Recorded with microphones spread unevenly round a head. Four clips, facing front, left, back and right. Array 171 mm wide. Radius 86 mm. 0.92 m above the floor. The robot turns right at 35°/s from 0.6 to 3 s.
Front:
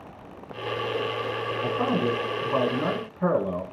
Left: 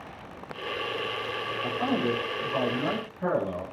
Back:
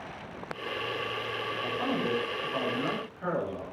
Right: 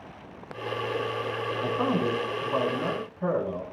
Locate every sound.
1.6 s a man speaking: 60° right, 5.5 m; by 3.6 s 10° right, 5.5 m